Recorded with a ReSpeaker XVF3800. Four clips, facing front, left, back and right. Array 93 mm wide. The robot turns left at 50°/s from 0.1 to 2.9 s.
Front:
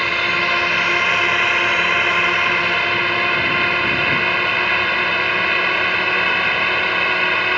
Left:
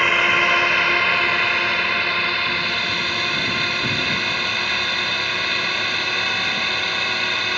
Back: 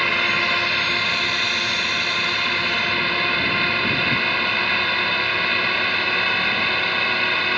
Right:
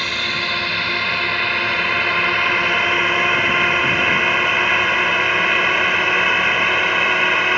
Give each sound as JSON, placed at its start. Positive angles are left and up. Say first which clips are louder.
{"t": 0.0, "sound": "a drone", "louder": "left 6 dB, front 2 dB", "azimuth_deg": 75}